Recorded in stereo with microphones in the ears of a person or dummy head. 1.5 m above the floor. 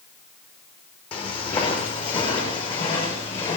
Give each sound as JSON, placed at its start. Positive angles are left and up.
{"t": 1.1, "sound": "footsteps", "side_deg": 35, "distance_m": 5.0}